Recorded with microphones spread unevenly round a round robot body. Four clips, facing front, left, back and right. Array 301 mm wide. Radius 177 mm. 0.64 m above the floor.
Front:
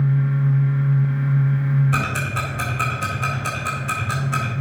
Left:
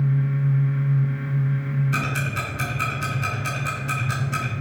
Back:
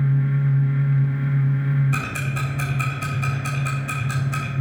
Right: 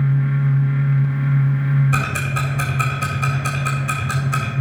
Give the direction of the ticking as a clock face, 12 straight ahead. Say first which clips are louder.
Right 4 dB, front 4 dB; 2 o'clock.